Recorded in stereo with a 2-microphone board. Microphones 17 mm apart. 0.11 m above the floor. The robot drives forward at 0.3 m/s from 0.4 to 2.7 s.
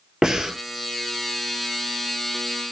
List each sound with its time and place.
0.2 s breathing: 40° right (ahead or behind), 0.7 m